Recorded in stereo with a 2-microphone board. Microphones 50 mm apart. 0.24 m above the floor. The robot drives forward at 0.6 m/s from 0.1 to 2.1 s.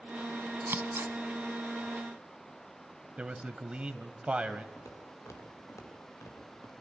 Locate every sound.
0.6 s scissors: 50° right (ahead or behind), 1.2 m
3.2 s a man speaking: 20° right (ahead or behind), 1.2 m
4.8 s footsteps: 80° left, 4.5 m; by 6.7 s 65° left (ahead or behind), 5 m